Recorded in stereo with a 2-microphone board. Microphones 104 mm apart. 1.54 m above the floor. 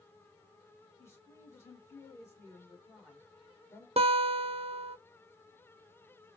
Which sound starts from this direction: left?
A woman speaking, at 1.0 s.